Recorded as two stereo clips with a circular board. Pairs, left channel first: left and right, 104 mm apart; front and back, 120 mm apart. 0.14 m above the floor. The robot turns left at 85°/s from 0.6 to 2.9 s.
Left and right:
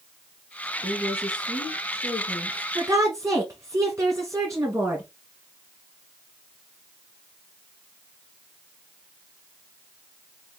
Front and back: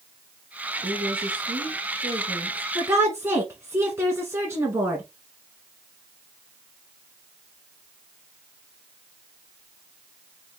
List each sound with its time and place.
0.8 s a woman speaking: 140° right, 1.9 m; by 2.6 s 65° left, 1.9 m
2.8 s a woman speaking: 115° right, 1.3 m; by 5.0 s 125° right, 1.3 m